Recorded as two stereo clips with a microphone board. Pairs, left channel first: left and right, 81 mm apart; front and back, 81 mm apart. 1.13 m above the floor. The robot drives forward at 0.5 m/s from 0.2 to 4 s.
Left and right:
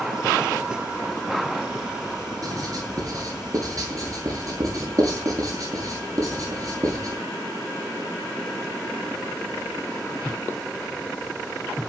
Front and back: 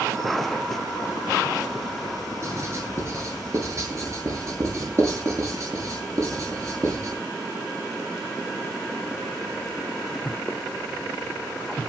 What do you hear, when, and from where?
2.4 s writing: 130° right, 9 m